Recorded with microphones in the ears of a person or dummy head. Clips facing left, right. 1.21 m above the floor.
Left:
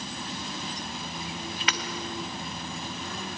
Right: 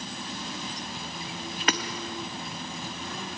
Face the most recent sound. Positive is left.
turn(degrees=-35)  # may be behind; listen again after turning